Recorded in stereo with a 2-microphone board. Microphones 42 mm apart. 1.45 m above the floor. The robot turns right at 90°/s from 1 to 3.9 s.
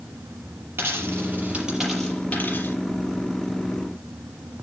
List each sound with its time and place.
0.8 s a dropped coin: 75° right (ahead or behind), 6 m; by 2.8 s 75° left (ahead or behind), 6 m